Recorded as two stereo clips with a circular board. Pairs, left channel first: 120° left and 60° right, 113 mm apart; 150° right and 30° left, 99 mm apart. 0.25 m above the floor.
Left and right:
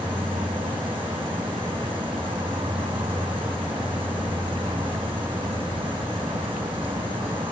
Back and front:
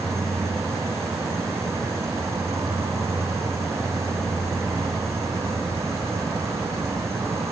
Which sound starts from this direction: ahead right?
An insect, at 0.0 s.